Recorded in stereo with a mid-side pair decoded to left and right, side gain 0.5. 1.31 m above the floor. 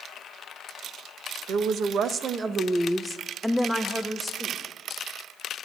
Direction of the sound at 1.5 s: 65° right.